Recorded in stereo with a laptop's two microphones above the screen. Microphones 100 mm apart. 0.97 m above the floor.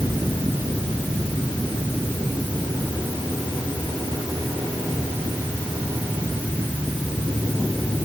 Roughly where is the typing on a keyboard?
I don't hear typing on a keyboard.